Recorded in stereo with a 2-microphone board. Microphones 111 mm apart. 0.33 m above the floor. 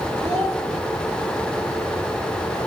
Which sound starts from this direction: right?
A child speaking, at 0.2 s.